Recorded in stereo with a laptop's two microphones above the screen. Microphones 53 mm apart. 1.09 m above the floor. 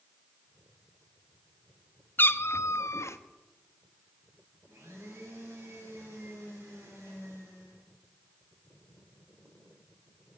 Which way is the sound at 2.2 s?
40° left (ahead or behind).